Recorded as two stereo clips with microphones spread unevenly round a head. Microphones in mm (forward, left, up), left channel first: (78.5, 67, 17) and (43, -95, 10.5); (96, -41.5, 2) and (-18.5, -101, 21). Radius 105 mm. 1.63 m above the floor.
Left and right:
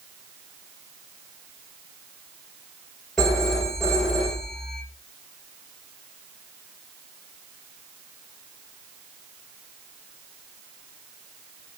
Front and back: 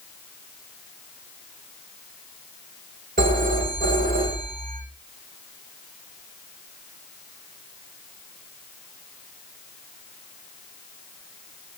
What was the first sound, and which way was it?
A phone ringing, 165° left.